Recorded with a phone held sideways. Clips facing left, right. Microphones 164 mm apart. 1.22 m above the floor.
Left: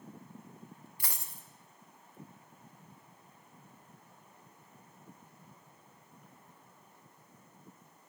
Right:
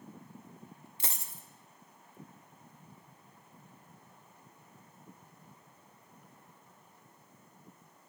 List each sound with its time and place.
1.0 s a dropped coin: 25° right (ahead or behind), 0.6 m